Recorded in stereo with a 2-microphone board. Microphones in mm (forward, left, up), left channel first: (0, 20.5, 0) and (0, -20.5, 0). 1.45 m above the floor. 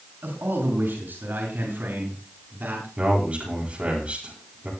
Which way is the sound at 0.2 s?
60° right (ahead or behind).